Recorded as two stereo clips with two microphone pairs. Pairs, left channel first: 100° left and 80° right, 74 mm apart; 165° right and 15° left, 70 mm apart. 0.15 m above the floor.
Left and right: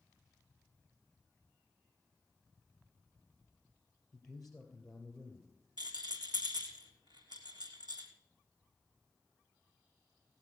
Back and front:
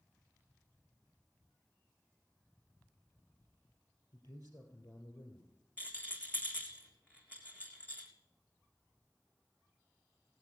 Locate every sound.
4.1 s a man speaking: straight behind, 3 m
5.8 s a rattle: 100° right, 3.5 m